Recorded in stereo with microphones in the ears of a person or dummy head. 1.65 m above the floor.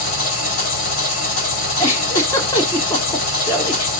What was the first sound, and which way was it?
An engine running, 45° left (ahead or behind).